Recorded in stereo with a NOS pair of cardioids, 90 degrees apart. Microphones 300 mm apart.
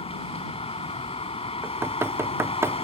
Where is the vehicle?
20° left.